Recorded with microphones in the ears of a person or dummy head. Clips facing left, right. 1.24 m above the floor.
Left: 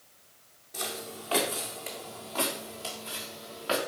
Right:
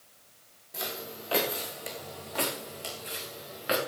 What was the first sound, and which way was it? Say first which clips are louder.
Footsteps: even; 5° right (ahead or behind).